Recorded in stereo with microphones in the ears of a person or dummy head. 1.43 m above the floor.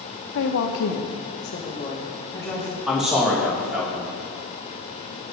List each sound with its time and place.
0.3 s a woman speaking: 70° left (ahead or behind), 1.0 m; by 2.8 s 5° left (ahead or behind), 1.8 m
2.9 s a man speaking: 5° right (ahead or behind), 2.5 m